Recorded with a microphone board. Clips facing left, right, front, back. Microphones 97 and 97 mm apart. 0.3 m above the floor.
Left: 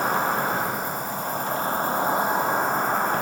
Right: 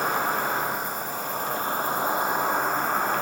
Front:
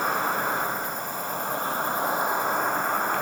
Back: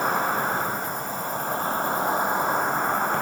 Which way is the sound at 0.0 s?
135° left.